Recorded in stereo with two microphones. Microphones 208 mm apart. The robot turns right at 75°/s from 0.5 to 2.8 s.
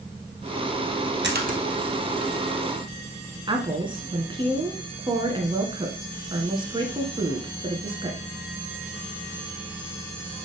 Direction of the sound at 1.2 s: 60° right (ahead or behind).